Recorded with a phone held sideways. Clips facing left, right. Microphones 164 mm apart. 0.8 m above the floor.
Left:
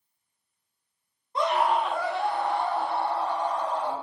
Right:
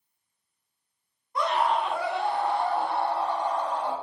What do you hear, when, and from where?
1.4 s a scream: 25° left (ahead or behind), 0.9 m; by 3.9 s 70° right (ahead or behind), 1.8 m